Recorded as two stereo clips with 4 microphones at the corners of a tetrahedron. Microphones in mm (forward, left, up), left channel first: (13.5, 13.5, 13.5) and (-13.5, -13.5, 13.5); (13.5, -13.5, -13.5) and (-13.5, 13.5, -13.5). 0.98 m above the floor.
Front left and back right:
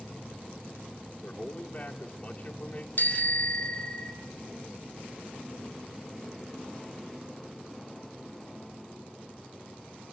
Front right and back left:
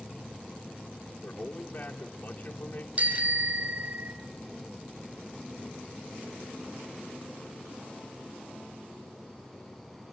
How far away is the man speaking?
About 2 m.